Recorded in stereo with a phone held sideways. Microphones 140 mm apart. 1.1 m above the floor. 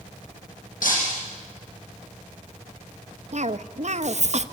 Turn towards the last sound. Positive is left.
turn(degrees=-55)  # may be behind; listen again after turning